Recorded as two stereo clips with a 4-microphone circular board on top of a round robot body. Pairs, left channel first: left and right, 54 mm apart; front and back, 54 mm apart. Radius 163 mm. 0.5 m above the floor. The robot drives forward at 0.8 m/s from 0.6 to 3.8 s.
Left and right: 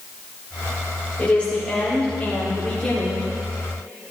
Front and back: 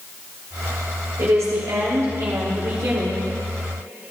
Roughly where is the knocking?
I don't hear knocking.